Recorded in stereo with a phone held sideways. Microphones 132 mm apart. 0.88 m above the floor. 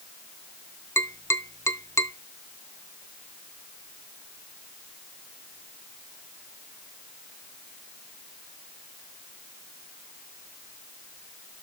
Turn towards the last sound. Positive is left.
turn(degrees=20)  # may be behind; listen again after turning